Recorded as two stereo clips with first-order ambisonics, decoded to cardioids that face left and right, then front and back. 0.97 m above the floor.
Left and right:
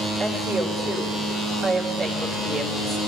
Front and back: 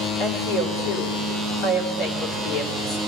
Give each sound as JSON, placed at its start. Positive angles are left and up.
{"t": 0.2, "sound": "a woman speaking", "azimuth_deg": 5, "distance_m": 3.5}